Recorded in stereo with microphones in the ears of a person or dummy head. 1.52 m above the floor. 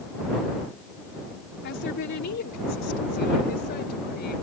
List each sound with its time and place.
1.6 s a woman speaking: 60° left (ahead or behind); by 4.4 s 55° left (ahead or behind)